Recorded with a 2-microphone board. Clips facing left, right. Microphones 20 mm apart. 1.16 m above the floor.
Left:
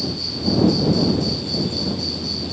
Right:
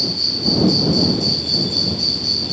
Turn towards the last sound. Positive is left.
turn(degrees=-25)  # may be behind; listen again after turning